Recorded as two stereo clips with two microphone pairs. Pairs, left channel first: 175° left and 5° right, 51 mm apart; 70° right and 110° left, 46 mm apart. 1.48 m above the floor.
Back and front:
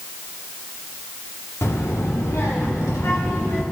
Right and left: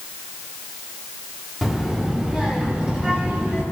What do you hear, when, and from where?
1.6 s a child speaking: 165° right, 2 m; by 3.6 s 175° left, 4 m